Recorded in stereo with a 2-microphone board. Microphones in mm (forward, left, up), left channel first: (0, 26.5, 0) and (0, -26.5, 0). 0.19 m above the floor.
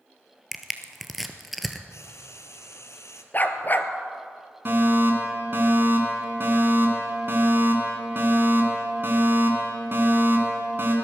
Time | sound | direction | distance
0.5 | crushing | centre (ahead or behind) | 1.0 m
1.9 | frying | 75° left (ahead or behind) | 1.1 m
3.3 | a dog barking | 40° left (ahead or behind) | 0.9 m
4.7 | a fire alarm | 45° right (ahead or behind) | 3 m